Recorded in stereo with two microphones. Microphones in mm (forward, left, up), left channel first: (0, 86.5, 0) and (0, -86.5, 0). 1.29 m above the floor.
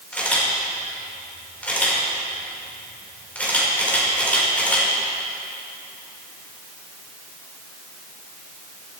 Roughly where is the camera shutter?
Centre.